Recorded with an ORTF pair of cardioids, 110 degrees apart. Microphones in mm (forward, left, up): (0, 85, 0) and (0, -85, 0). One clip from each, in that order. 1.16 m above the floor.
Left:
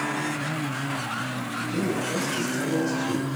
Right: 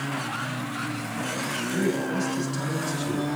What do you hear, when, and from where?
1.7 s a man speaking: 5° left, 3 m